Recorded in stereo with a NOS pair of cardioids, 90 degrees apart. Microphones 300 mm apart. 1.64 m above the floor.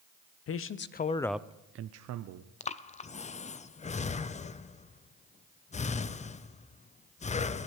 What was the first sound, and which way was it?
A man speaking, 50° left.